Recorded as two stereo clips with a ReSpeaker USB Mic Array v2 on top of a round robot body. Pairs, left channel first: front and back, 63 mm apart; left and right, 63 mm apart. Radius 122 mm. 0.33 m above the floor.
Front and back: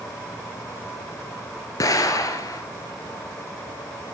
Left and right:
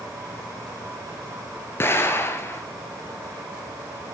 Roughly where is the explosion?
Ahead left.